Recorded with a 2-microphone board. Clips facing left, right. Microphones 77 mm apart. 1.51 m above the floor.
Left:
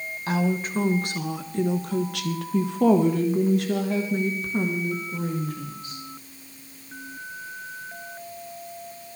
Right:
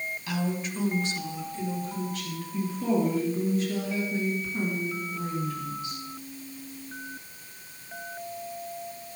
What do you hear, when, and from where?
0.3 s a woman speaking: 40° left (ahead or behind), 1.4 m; by 6.0 s 45° left (ahead or behind), 2.5 m